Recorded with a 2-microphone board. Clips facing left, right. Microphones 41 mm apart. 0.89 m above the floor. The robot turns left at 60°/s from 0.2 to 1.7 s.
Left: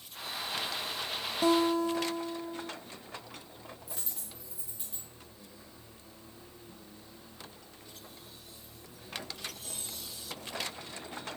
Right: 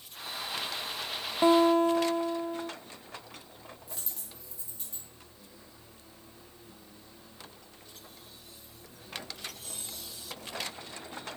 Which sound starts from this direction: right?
A guitar, at 1.4 s.